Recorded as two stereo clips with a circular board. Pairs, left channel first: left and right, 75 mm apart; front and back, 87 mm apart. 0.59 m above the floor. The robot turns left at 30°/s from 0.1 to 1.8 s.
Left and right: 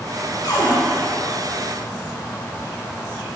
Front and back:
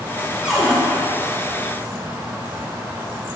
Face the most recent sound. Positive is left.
turn(degrees=60)